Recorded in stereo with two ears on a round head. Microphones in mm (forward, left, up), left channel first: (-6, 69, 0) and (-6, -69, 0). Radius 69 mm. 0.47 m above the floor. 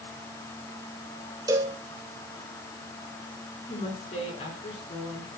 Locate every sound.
1.5 s a cowbell: 25° right (ahead or behind), 1.8 m
3.7 s a woman speaking: 40° left (ahead or behind), 6.5 m